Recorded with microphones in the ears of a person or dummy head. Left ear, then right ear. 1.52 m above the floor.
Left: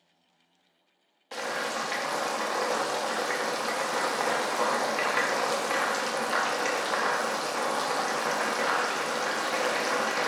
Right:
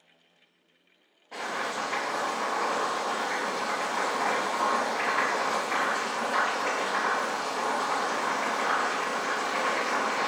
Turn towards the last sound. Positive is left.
turn(degrees=70)  # may be behind; listen again after turning